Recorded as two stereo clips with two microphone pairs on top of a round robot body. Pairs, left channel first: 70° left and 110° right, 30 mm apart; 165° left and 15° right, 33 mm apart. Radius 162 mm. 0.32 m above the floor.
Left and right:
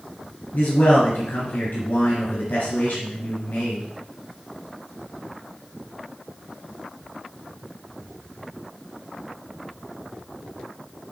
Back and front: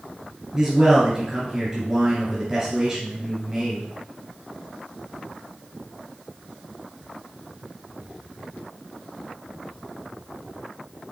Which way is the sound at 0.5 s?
55° left.